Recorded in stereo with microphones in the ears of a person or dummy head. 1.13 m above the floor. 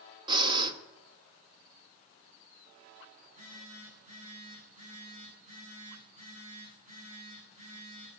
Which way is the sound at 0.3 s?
25° right (ahead or behind).